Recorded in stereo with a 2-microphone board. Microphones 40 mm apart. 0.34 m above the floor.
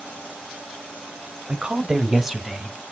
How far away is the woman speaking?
About 1.4 m.